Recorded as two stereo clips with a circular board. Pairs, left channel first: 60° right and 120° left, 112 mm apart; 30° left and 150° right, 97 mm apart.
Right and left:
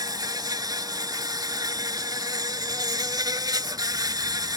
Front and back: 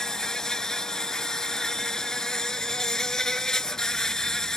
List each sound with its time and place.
0.0 s an insect: 110° left